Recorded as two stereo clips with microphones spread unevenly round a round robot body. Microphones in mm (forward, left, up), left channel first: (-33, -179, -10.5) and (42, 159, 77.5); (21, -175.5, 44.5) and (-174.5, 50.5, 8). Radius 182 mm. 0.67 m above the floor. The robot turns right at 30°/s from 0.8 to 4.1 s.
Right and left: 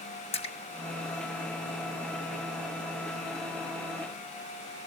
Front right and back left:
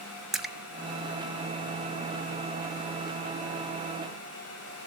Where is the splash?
150° right, 1.4 m.